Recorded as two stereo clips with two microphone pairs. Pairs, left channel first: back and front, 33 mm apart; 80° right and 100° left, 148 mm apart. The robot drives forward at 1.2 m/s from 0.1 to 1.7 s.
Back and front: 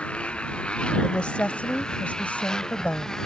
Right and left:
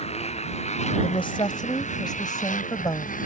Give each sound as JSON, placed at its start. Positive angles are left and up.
{"t": 0.0, "sound": "a motorcycle", "azimuth_deg": -125}
{"t": 1.0, "sound": "a woman speaking", "azimuth_deg": -125}